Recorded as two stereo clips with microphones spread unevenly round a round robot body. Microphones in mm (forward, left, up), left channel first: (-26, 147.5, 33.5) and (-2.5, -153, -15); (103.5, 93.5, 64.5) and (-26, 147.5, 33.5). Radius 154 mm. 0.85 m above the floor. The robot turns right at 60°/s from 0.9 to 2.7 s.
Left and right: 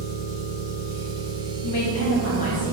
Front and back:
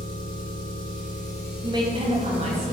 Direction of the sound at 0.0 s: 10° right.